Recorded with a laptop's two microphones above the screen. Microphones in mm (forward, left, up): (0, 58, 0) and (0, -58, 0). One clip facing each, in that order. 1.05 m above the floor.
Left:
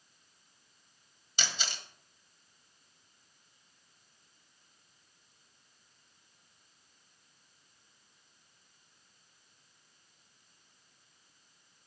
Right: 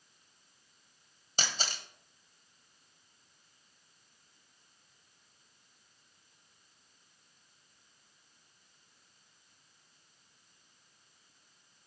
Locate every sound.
1.4 s a camera shutter: 40° right (ahead or behind), 1.5 m